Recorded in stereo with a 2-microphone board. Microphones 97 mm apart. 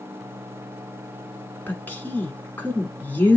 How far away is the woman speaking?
About 1.1 m.